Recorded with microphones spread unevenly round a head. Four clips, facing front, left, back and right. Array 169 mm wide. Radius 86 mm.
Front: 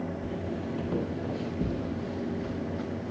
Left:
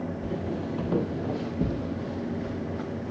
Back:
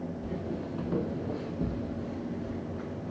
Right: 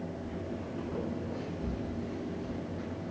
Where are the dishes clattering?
No dishes clattering in this recording.